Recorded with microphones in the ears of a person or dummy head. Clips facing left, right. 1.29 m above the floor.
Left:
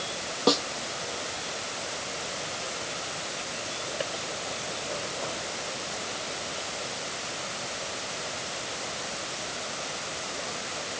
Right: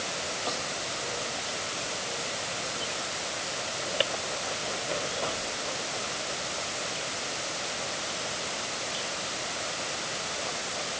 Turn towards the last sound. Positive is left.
turn(degrees=85)